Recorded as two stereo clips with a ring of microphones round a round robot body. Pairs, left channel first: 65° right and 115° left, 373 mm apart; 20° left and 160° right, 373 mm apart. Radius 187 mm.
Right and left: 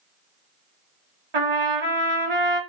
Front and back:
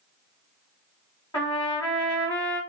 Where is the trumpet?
105° left, 1.6 m.